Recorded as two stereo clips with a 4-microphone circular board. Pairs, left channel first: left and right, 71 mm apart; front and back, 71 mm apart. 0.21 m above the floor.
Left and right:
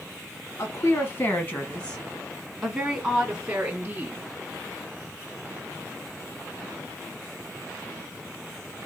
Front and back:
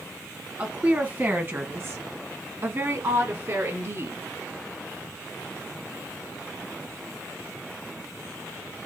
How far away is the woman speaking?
About 1.7 m.